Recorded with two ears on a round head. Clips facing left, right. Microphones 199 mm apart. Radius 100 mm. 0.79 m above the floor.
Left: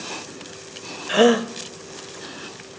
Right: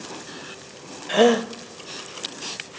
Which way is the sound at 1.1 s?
5° left (ahead or behind).